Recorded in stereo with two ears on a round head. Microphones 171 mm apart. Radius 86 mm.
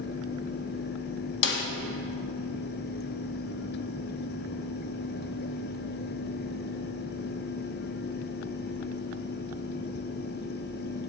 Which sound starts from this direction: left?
A snare drum, at 1.4 s.